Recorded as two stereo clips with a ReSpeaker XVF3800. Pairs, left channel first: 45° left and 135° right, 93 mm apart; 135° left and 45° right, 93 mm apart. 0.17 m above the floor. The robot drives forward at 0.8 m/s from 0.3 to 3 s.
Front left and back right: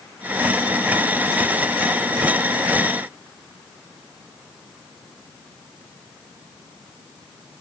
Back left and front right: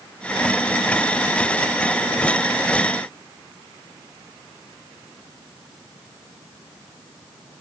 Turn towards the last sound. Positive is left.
No sound to turn to.